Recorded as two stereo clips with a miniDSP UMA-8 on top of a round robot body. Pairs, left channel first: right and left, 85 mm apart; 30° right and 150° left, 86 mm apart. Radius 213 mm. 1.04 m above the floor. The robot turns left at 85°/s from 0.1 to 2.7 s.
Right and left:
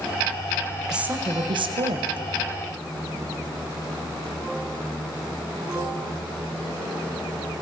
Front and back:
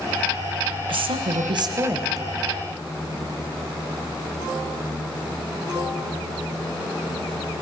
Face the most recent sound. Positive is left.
turn(degrees=20)